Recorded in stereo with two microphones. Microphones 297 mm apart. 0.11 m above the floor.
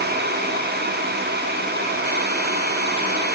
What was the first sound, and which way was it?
Only background noise.